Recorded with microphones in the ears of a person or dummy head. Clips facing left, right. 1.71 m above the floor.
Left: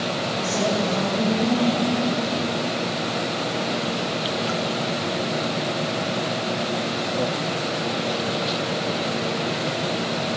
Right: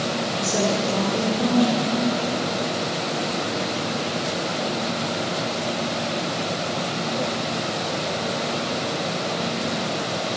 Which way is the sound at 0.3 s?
35° right (ahead or behind).